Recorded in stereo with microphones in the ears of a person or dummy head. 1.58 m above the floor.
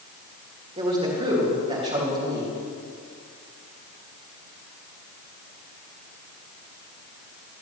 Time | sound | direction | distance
0.8 | a man speaking | 30° right (ahead or behind) | 3 m